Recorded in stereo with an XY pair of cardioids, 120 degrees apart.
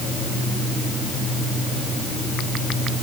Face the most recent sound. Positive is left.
No sound to turn to.